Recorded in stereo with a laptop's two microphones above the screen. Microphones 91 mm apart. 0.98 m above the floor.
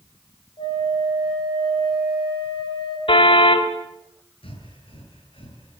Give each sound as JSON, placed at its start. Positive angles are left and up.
{"t": 0.6, "sound": "a flute", "side_deg": 65, "distance_m": 8.5}
{"t": 3.1, "sound": "a car horn", "side_deg": 70, "distance_m": 2.5}
{"t": 4.4, "sound": "breathing", "side_deg": 80, "distance_m": 8.5}